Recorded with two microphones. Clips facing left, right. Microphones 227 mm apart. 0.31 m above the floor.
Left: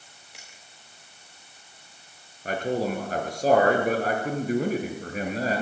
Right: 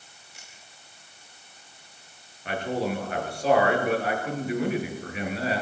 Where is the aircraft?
No aircraft in this recording.